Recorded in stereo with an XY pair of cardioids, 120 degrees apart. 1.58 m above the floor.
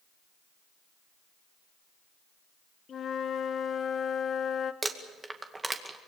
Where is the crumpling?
20° right, 2 m.